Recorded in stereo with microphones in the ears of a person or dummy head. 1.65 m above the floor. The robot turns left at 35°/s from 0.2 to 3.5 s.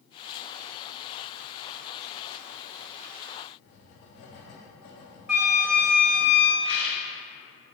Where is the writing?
50° left (ahead or behind), 0.7 m.